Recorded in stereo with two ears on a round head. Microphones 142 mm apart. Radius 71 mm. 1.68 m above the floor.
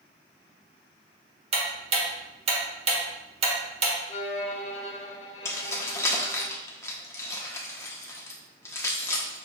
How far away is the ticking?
About 1.0 m.